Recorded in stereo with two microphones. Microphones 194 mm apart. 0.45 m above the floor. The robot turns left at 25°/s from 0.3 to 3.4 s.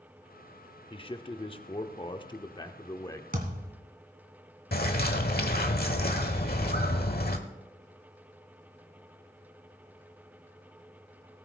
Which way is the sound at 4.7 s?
55° left (ahead or behind).